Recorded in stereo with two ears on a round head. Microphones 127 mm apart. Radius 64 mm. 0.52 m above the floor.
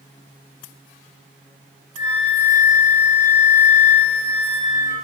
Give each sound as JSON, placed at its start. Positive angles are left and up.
{"t": 2.0, "sound": "a flute", "side_deg": 50, "distance_m": 5.0}